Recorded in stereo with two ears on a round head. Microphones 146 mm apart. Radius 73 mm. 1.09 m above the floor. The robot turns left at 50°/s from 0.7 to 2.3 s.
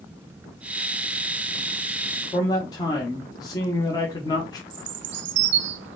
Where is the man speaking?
20° left (ahead or behind), 1.1 m.